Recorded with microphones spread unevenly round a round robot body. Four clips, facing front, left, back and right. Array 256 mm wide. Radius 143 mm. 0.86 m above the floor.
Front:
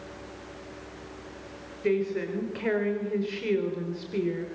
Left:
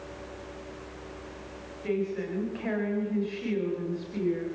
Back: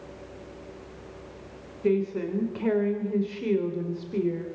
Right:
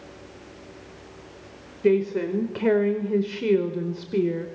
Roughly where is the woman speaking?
Right.